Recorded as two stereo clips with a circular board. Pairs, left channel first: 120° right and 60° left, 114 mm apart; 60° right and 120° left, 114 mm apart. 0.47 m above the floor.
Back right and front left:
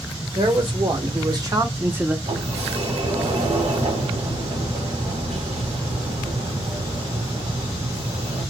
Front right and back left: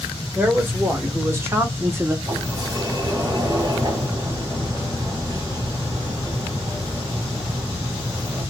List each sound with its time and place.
0.3 s a man speaking: 55° left, 1.3 m; by 2.1 s 120° left, 0.8 m
2.2 s a sliding door: 70° left, 1.8 m